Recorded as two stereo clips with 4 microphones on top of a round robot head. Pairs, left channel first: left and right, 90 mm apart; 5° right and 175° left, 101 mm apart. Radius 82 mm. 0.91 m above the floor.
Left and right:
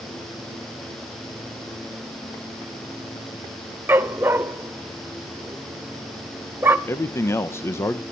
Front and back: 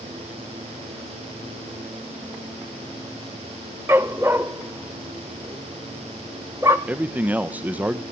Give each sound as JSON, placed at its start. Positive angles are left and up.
{"t": 3.9, "sound": "a dog barking", "azimuth_deg": -130, "distance_m": 0.6}
{"t": 6.9, "sound": "a man speaking", "azimuth_deg": 115, "distance_m": 0.9}